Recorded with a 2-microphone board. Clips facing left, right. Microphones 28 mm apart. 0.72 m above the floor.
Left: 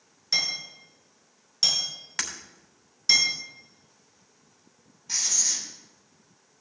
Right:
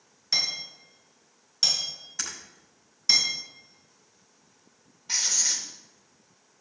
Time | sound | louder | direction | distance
0.3 | hammering | left 1 dB | centre (ahead or behind) | 6.5 m
2.2 | breaking glass | left 4 dB | 90° left | 2.5 m
5.1 | writing | right 1 dB | 25° right (ahead or behind) | 2.5 m